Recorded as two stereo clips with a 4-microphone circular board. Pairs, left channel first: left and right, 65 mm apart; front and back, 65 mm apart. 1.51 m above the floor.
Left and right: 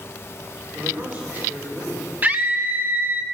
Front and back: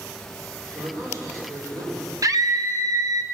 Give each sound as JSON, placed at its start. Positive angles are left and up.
{"t": 0.7, "sound": "a man speaking", "azimuth_deg": -145, "distance_m": 6.0}
{"t": 2.2, "sound": "a scream", "azimuth_deg": -150, "distance_m": 0.7}